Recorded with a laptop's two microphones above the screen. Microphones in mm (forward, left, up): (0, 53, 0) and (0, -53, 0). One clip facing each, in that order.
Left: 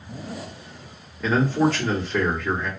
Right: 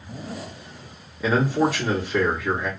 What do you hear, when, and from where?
1.2 s a man speaking: 10° right (ahead or behind), 1.7 m